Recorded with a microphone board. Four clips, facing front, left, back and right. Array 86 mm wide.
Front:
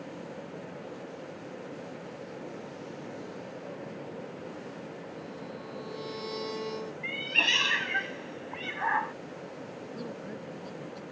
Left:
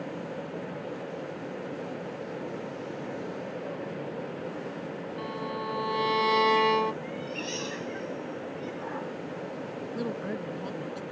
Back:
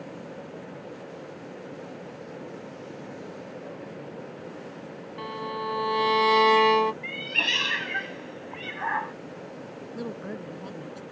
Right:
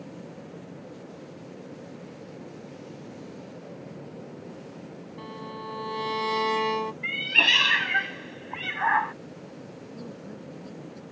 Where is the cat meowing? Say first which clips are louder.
Right 6 dB, back 1 dB; 85° right.